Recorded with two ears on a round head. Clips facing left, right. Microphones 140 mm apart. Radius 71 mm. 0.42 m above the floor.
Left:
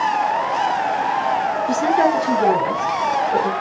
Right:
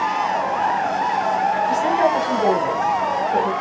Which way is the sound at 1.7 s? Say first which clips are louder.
Left 4 dB; 60° left (ahead or behind).